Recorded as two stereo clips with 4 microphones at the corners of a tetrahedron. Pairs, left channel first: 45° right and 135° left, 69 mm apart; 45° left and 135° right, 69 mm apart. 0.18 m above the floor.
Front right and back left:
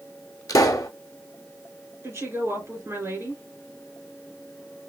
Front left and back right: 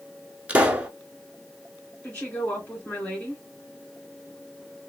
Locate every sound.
0.5 s a pop: 70° right, 0.7 m
2.0 s a woman speaking: 110° left, 2.5 m